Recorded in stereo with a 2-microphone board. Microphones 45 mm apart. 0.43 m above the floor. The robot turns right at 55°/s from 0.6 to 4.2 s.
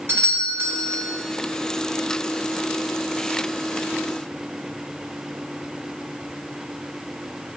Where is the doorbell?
65° right (ahead or behind), 3 m; by 1.1 s 60° right (ahead or behind), 3 m.